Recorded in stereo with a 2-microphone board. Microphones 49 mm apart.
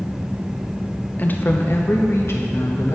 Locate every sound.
1.2 s a woman speaking: 35° left (ahead or behind), 0.6 m; by 3.0 s 65° left (ahead or behind), 1.7 m